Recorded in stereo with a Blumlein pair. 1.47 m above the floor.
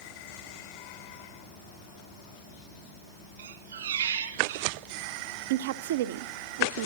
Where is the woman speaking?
55° right, 0.7 m.